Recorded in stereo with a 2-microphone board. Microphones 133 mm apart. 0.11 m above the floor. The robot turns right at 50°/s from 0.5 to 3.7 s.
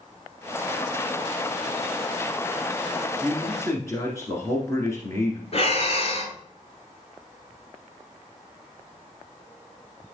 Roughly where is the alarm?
I don't hear an alarm.